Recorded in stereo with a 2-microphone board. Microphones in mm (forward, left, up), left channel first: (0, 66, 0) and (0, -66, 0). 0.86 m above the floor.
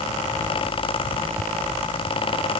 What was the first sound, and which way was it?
Only background noise.